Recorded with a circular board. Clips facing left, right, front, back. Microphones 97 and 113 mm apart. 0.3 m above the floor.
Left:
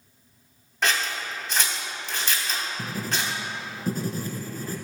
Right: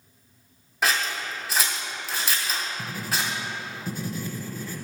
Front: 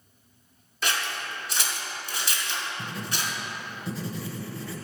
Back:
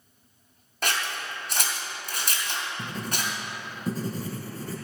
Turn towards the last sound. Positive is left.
turn(degrees=135)